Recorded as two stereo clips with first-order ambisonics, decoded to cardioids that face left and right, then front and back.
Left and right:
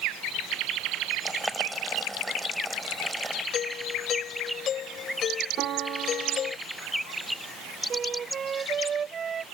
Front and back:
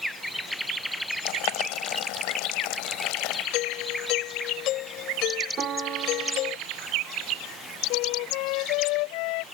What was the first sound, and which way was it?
Boiling, 5° right.